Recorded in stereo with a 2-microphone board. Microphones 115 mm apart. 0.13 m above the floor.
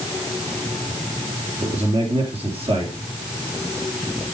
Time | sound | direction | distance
1.6 | a man speaking | 55° right (ahead or behind) | 3.5 m